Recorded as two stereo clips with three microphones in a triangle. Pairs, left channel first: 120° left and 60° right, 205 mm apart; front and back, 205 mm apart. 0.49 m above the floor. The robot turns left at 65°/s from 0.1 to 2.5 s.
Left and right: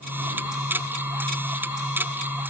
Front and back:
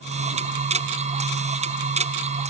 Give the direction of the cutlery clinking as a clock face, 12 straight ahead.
I don't hear cutlery clinking.